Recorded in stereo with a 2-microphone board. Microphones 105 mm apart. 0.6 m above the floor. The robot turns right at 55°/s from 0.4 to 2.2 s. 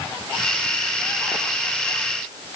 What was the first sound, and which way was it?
Only background noise.